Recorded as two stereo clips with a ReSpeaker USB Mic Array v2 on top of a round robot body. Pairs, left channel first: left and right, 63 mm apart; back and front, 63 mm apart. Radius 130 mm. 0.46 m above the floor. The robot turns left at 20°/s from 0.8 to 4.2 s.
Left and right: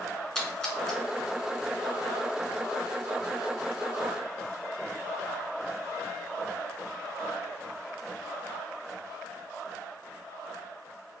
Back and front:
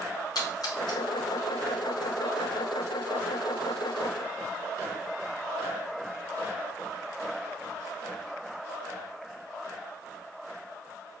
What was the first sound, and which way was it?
A splash, 170° left.